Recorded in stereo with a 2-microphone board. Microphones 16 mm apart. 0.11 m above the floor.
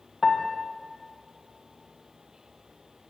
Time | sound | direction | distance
0.2 | a piano | 10° right (ahead or behind) | 4.5 m